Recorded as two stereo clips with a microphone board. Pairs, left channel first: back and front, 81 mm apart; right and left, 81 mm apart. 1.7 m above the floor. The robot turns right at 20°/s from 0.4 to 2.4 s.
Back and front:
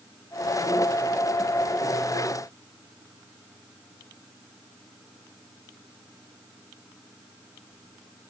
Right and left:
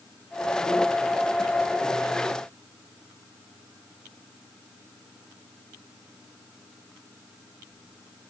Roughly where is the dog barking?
No dog barking in this recording.